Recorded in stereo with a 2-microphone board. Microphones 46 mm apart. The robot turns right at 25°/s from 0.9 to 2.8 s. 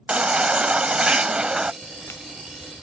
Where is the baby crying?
25° right (ahead or behind); by 1.7 s 20° right (ahead or behind).